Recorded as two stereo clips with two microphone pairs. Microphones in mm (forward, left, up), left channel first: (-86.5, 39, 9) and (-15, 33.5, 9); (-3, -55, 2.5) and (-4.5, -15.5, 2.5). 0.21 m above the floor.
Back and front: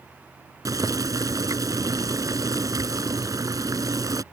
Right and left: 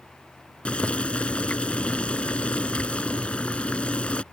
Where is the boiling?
30° right.